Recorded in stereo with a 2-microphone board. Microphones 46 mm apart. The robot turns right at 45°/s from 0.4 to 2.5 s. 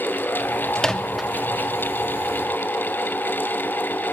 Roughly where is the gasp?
No gasp in this recording.